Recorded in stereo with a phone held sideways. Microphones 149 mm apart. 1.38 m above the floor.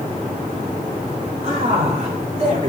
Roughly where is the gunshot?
No gunshot in this recording.